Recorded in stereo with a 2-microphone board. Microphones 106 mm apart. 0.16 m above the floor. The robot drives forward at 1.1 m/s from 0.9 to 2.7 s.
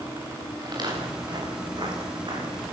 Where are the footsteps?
40° right (ahead or behind), 9 m; by 2.6 s 50° right (ahead or behind), 9.5 m.